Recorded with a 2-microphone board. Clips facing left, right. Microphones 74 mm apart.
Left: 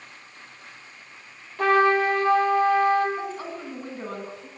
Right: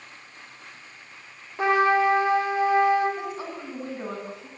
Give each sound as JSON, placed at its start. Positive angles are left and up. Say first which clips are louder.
{"t": 1.6, "sound": "a trumpet", "louder": "left 1 dB", "side_deg": -20, "distance_m": 8.0}
{"t": 3.2, "sound": "a woman speaking", "louder": "left 1 dB", "side_deg": -15, "distance_m": 10.0}